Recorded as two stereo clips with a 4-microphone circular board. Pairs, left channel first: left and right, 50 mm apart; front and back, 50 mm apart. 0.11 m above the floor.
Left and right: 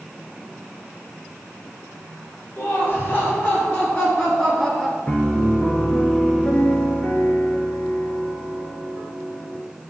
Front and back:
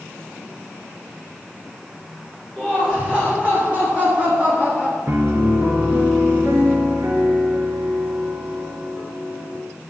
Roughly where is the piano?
Behind left.